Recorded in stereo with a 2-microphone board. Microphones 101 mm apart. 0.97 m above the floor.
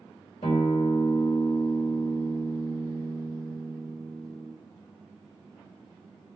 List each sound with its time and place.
0.4 s a guitar: 85° left, 2 m